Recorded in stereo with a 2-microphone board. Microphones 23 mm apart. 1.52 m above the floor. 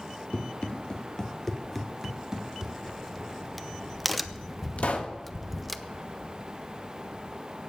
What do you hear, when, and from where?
0.3 s running footsteps: 50° left (ahead or behind), 2.5 m; by 2.7 s 25° right (ahead or behind), 2.5 m
2.8 s a crack: centre (ahead or behind), 0.7 m
4.8 s a pop: 65° left (ahead or behind), 1.7 m